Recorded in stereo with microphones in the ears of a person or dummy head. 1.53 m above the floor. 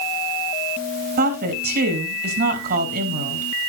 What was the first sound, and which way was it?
A woman speaking, 50° right (ahead or behind).